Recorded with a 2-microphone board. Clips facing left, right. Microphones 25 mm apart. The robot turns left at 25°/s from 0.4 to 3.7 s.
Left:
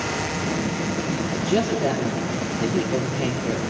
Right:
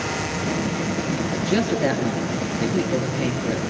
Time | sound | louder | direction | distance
1.3 | a man speaking | even | 95° right | 5 m